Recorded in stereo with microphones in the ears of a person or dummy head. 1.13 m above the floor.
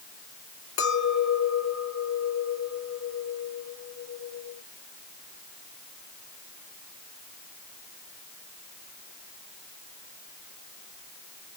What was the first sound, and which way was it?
A clink, 75° left (ahead or behind).